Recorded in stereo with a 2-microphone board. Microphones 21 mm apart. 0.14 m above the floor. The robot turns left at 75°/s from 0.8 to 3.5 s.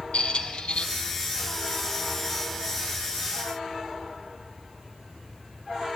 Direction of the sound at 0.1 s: 60° left (ahead or behind).